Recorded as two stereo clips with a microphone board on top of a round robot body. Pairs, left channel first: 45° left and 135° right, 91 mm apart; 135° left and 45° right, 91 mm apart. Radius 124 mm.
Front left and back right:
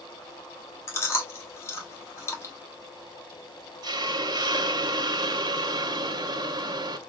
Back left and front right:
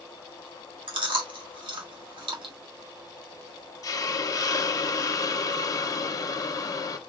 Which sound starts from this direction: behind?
A hiss, at 3.8 s.